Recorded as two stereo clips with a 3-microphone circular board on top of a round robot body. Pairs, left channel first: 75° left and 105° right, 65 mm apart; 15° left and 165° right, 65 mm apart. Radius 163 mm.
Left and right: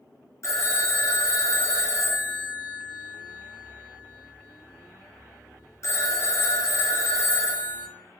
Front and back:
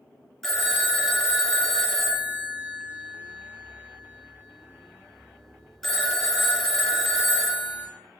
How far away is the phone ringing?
About 0.8 m.